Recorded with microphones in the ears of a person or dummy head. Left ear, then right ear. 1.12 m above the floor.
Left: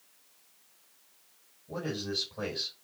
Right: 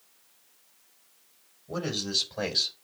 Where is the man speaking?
55° right (ahead or behind), 6.5 m; by 2.7 s 60° right (ahead or behind), 6 m.